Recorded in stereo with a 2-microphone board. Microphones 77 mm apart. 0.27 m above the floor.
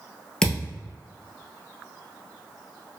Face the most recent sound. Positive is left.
turn(degrees=10)  # may be behind; listen again after turning